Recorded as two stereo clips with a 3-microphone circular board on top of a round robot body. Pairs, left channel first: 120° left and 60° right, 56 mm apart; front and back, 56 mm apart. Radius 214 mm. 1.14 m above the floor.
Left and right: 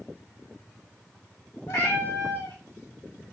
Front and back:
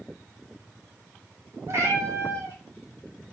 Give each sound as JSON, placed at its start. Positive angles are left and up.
{"t": 1.7, "sound": "a cat meowing", "azimuth_deg": 140, "distance_m": 2.5}